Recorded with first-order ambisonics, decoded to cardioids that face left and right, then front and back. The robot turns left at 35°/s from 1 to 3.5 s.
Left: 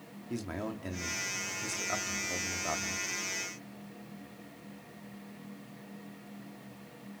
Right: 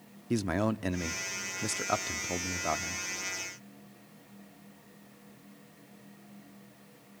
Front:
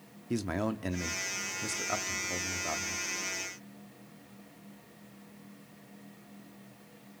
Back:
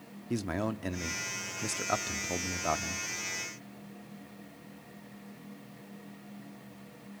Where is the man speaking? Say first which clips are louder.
Right 8 dB, front 1 dB; 90° right, 0.7 m; by 3.0 s 160° right, 0.7 m.